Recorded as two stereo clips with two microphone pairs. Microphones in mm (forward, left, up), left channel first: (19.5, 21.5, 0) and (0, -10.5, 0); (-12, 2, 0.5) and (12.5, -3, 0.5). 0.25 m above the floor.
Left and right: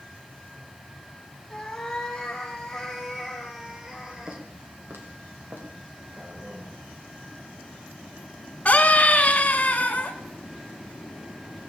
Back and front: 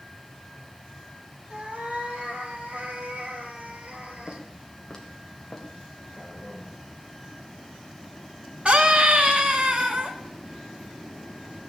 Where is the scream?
5° left, 2.5 m.